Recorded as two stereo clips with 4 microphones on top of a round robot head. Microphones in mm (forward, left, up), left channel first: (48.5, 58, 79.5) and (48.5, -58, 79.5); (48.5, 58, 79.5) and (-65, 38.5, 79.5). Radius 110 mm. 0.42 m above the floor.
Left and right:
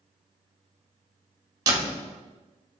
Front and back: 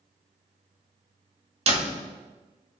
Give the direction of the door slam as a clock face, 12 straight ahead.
5 o'clock.